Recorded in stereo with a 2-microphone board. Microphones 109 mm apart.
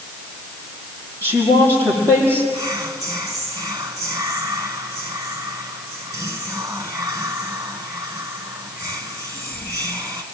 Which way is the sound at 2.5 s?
25° right (ahead or behind).